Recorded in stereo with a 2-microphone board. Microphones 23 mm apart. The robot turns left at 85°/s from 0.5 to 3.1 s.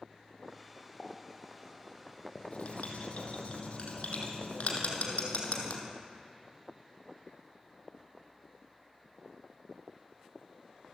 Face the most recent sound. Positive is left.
turn(degrees=65)  # may be behind; listen again after turning